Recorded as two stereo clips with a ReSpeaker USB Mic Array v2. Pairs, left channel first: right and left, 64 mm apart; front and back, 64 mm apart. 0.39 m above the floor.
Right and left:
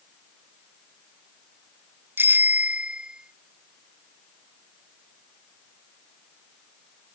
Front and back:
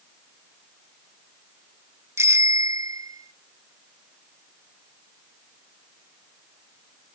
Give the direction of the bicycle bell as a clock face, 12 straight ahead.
7 o'clock.